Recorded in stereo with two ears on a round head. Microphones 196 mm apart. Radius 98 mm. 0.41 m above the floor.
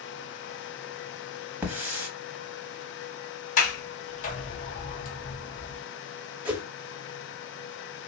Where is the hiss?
10° right (ahead or behind), 0.8 m.